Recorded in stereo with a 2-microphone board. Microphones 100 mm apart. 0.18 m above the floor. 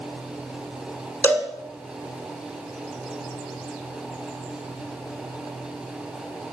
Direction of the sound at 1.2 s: 20° left (ahead or behind).